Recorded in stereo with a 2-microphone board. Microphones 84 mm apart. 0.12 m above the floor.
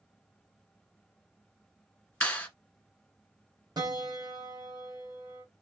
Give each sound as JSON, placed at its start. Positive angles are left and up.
{"t": 2.2, "sound": "a clap", "side_deg": 20, "distance_m": 1.3}
{"t": 3.8, "sound": "a piano", "side_deg": -55, "distance_m": 0.9}